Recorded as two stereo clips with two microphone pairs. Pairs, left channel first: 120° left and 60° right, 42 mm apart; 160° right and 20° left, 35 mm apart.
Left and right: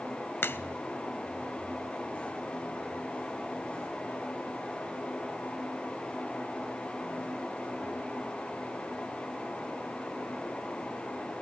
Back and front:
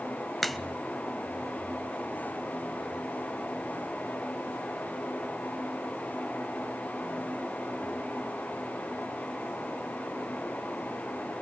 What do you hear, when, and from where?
0.4 s a crack: 110° left, 0.5 m